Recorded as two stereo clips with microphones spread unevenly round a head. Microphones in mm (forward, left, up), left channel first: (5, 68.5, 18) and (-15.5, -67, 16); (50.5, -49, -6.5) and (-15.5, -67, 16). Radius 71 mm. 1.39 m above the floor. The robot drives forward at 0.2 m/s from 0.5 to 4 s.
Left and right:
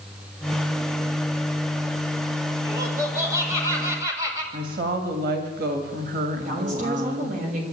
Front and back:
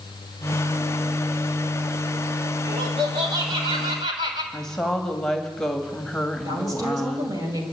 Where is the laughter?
170° right, 4.5 m.